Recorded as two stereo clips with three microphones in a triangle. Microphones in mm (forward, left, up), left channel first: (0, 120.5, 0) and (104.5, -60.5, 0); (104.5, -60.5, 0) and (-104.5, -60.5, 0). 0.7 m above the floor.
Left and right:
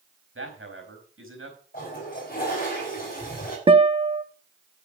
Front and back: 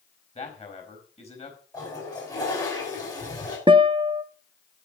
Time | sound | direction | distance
0.3 | a man speaking | 60° right | 4 m
1.7 | a toilet flushing | 70° left | 5.5 m
3.7 | a guitar | 115° right | 0.6 m